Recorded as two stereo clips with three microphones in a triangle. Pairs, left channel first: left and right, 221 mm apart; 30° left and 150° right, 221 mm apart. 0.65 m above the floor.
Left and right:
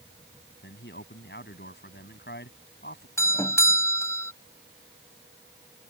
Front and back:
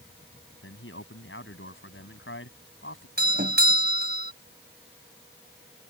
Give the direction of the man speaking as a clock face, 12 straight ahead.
10 o'clock.